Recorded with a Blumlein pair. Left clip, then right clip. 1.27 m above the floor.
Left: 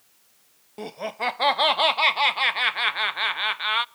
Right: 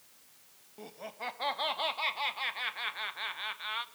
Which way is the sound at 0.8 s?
55° left.